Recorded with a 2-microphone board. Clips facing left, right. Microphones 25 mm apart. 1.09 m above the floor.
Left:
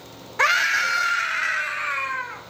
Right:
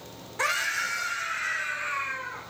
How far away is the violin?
No violin in this recording.